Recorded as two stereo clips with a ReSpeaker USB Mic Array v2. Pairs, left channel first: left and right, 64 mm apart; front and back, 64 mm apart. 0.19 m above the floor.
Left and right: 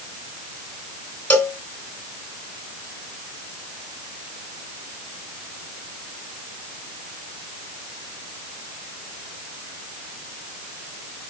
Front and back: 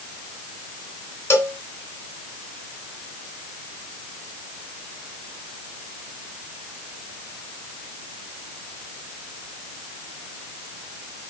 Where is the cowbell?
30° left, 2.5 m.